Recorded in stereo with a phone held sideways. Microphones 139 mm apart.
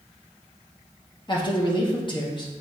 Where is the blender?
I don't hear a blender.